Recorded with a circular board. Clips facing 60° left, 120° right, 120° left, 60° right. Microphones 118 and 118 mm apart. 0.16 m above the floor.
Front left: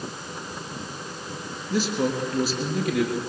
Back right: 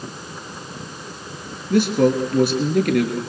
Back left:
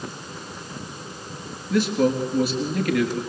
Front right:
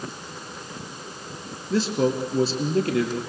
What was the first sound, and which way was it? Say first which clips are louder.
A man speaking: back right 8 dB, back left 2 dB; 115° right.